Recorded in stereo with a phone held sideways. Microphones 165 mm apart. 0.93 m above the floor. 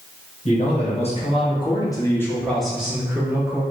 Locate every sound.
0.5 s a man speaking: 40° left (ahead or behind), 1.2 m; by 3.6 s 20° right (ahead or behind), 1.1 m